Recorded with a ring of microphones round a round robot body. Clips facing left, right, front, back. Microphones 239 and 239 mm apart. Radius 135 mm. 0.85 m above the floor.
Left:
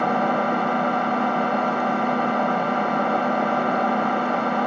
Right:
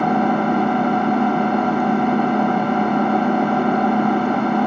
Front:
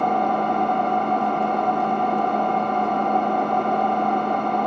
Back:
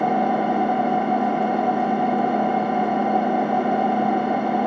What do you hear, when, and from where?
0.0 s an engine running: 95° right, 0.8 m